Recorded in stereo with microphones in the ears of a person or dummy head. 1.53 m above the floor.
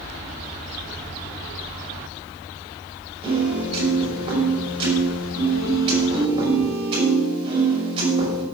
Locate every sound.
3.2 s a piano: 30° right (ahead or behind), 5.5 m